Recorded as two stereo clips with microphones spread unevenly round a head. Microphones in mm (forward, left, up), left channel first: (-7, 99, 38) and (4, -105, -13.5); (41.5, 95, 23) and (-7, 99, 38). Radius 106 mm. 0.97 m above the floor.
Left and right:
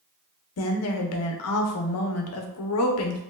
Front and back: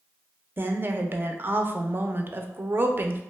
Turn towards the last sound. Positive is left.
turn(degrees=115)